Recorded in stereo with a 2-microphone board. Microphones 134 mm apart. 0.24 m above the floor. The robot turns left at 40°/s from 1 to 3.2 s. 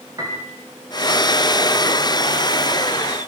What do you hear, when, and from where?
0.2 s a piano: 30° right (ahead or behind), 7.5 m